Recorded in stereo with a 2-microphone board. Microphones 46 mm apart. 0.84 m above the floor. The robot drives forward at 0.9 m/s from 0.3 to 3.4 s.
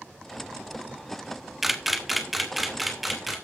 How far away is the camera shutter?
About 1.1 m.